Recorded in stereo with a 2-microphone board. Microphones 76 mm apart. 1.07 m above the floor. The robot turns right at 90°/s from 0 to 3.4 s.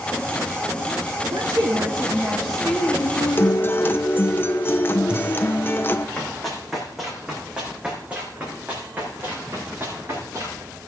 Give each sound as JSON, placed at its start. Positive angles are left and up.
{"t": 1.3, "sound": "a woman speaking", "azimuth_deg": -80, "distance_m": 1.4}
{"t": 3.4, "sound": "a guitar", "side_deg": 30, "distance_m": 0.6}
{"t": 6.2, "sound": "running footsteps", "side_deg": 10, "distance_m": 3.5}